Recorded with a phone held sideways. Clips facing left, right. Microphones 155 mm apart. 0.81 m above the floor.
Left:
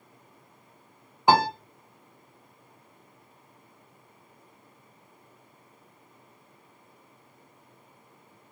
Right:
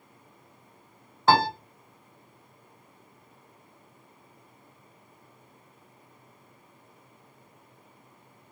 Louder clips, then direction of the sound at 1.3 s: Left 1 dB; 15° left (ahead or behind).